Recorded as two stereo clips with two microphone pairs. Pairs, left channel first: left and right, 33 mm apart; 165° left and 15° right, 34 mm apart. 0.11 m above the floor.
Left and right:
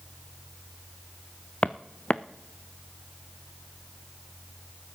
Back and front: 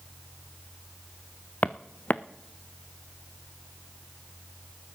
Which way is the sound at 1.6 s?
135° left.